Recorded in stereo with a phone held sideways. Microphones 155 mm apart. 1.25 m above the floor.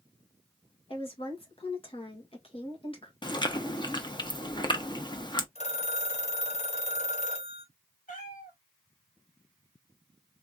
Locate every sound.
0.9 s a woman speaking: 40° left (ahead or behind), 2.0 m
3.2 s chewing: 30° left (ahead or behind), 0.7 m
5.5 s a phone ringing: 45° left (ahead or behind), 1.6 m
8.1 s a cat meowing: 60° left (ahead or behind), 1.7 m